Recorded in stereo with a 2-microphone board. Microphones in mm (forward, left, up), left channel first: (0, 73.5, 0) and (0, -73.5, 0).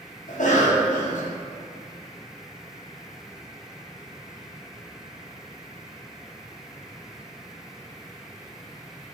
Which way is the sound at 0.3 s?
65° left (ahead or behind).